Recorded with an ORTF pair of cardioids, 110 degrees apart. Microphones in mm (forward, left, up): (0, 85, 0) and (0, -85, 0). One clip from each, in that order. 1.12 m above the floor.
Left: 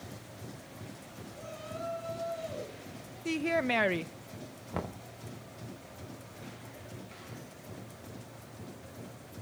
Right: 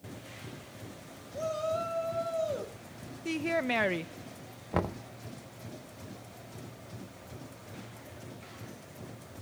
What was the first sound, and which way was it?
A shout, 70° right.